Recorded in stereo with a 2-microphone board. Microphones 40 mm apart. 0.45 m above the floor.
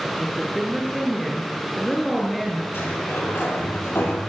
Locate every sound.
0.2 s a woman speaking: centre (ahead or behind), 6.5 m
2.7 s a sliding door: 70° left (ahead or behind), 9 m